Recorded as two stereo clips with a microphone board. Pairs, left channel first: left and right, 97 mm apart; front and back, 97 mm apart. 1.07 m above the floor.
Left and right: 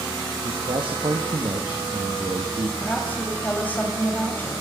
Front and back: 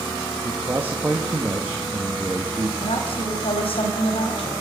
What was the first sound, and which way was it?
A man speaking, 110° right.